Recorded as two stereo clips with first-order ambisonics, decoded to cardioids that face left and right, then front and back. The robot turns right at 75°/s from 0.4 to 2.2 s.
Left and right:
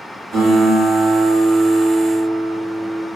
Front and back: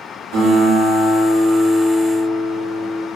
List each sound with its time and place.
0.3 s a guitar: 175° right, 0.9 m; by 3.0 s 40° right, 0.9 m